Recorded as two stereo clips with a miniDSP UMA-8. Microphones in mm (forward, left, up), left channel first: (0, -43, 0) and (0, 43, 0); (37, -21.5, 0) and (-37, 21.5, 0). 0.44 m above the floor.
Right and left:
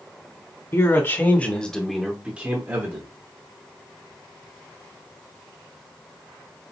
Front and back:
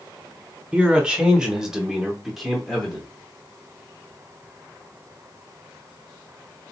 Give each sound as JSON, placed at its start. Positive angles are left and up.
{"t": 0.7, "sound": "a man speaking", "azimuth_deg": -135, "distance_m": 1.2}